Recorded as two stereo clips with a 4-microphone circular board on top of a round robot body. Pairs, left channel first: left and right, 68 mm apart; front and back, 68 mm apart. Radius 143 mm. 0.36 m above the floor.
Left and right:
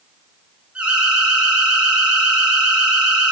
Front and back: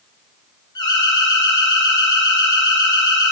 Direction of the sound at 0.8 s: 15° right.